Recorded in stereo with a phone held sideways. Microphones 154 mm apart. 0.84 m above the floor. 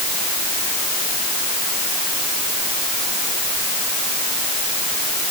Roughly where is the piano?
I don't hear a piano.